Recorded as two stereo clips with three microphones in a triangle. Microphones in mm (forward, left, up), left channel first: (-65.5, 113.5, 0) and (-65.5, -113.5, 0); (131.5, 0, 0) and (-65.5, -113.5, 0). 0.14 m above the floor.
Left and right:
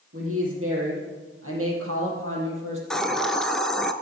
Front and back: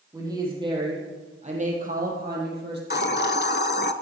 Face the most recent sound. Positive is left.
turn(degrees=5)